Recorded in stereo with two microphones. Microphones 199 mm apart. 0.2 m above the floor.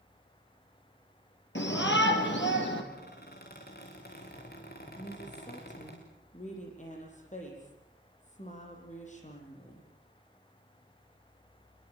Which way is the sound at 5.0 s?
35° left (ahead or behind).